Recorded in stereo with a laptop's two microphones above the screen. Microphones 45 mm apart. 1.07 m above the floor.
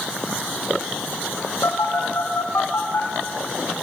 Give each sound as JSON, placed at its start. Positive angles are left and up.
{"t": 1.6, "sound": "a phone buzzing", "side_deg": 75, "distance_m": 3.0}